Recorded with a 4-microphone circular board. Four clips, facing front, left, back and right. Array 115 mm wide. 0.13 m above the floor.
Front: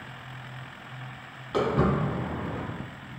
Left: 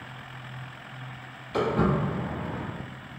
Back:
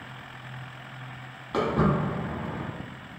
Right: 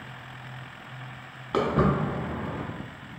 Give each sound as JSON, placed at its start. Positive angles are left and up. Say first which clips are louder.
{"t": 1.5, "sound": "footsteps", "louder": "right 1 dB, even", "azimuth_deg": -95, "distance_m": 1.2}